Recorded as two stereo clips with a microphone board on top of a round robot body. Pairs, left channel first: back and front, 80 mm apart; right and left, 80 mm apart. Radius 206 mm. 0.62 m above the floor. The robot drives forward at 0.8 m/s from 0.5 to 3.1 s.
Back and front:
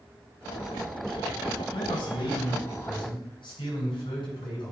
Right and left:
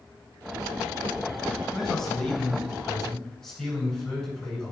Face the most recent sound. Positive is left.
turn(degrees=-175)